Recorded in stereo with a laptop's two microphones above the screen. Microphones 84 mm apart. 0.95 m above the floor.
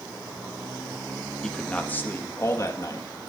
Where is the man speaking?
10° left (ahead or behind), 1.6 m; by 3.3 s 55° left (ahead or behind), 1.7 m.